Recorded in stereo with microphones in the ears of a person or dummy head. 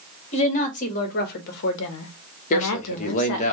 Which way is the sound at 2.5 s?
45° left (ahead or behind).